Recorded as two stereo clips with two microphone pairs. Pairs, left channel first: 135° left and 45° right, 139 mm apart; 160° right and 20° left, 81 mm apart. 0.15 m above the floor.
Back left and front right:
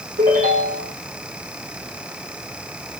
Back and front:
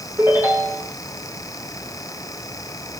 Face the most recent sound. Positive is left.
turn(degrees=-45)